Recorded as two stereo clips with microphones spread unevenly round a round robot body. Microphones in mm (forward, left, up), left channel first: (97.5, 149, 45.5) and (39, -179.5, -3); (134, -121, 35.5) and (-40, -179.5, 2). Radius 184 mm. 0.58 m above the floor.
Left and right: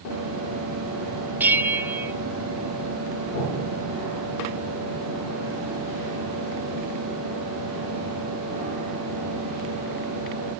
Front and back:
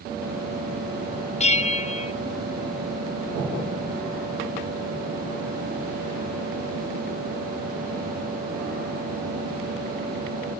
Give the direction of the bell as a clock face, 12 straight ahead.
1 o'clock.